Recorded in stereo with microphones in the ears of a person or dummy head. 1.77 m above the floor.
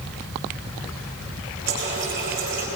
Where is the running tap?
45° right (ahead or behind), 6 m.